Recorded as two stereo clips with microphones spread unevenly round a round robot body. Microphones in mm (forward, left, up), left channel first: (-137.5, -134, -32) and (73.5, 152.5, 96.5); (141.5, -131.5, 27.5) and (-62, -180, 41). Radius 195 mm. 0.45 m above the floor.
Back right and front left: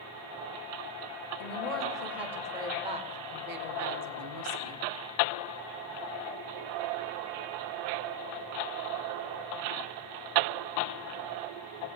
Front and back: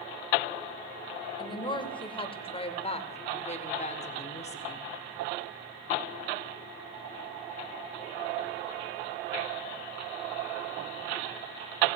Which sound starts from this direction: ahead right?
A woman speaking, at 1.4 s.